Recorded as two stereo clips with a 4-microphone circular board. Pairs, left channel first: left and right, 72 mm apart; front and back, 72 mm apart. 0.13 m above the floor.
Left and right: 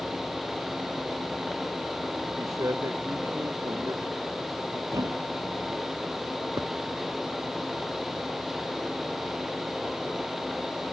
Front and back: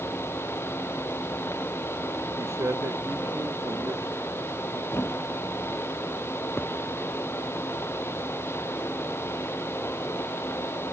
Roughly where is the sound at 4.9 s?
Ahead right.